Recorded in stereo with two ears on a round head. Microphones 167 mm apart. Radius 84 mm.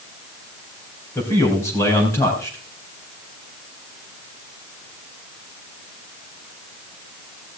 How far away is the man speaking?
About 4 m.